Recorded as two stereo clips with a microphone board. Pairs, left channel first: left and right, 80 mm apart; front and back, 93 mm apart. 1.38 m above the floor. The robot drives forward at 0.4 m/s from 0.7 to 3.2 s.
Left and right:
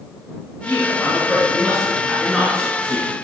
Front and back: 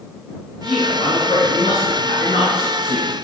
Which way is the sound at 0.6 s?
5° left.